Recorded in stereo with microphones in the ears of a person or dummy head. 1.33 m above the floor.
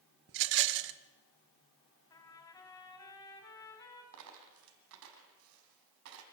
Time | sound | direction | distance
0.3 | a rattle | 60° right (ahead or behind) | 0.9 m
2.1 | a trumpet | 15° left (ahead or behind) | 3 m
4.1 | a dropped coin | 70° right (ahead or behind) | 3.5 m